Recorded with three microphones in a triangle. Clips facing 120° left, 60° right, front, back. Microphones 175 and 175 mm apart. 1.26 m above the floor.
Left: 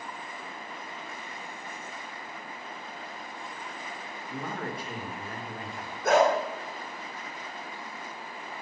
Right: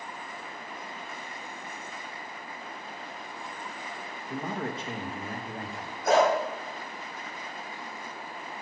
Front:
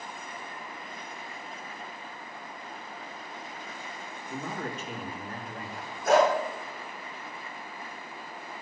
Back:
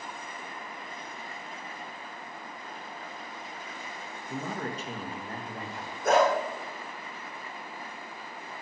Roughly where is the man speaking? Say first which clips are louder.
Right 2 dB, back 1 dB; behind right.